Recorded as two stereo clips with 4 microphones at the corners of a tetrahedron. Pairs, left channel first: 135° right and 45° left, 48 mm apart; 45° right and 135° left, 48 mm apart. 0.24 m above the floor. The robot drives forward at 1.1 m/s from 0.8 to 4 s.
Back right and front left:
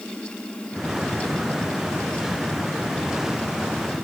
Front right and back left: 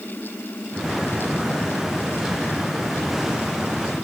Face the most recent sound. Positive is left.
No sound to turn to.